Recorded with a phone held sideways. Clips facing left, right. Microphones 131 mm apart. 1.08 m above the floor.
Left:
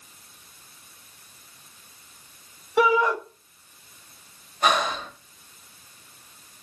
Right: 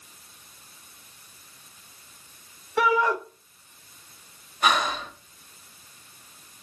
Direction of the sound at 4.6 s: 35° left (ahead or behind).